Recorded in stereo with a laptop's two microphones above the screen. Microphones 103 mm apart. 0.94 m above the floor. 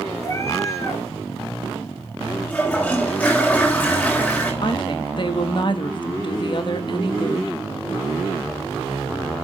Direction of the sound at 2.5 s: 15° left (ahead or behind).